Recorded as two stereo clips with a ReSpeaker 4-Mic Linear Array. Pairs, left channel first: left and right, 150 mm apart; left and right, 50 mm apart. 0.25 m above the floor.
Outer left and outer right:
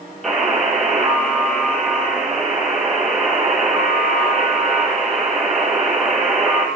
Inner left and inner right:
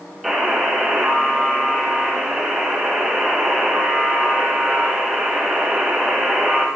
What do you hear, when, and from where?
0.2 s a buzzer: centre (ahead or behind), 6 m